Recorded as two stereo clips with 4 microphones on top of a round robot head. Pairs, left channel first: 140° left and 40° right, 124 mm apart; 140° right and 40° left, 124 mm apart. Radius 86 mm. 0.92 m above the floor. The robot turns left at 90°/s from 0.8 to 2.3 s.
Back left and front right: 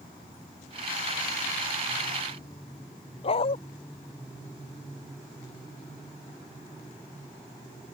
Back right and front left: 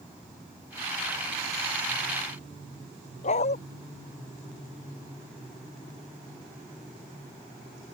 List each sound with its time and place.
3.2 s a dog barking: 175° right